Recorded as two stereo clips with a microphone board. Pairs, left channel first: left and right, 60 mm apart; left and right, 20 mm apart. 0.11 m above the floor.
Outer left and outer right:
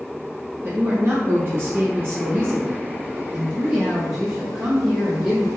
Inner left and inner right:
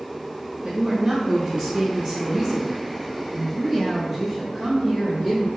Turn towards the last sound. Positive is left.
turn(degrees=-15)  # may be behind; listen again after turning